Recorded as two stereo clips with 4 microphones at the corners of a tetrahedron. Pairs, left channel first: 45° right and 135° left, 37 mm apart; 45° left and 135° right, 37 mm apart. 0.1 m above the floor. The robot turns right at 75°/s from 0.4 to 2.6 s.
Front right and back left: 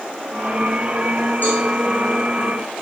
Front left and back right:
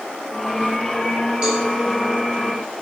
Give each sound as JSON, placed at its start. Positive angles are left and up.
{"t": 1.4, "sound": "a cowbell", "azimuth_deg": -80, "distance_m": 4.0}